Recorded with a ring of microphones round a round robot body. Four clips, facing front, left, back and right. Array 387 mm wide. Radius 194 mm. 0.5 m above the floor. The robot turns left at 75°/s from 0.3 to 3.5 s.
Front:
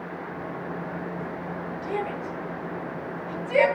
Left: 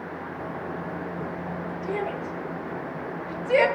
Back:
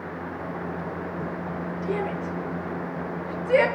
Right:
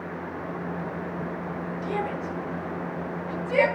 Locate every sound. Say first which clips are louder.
1.8 s a shout: even, back 2 dB; 85° right, 9 m; by 3.7 s 150° left, 9 m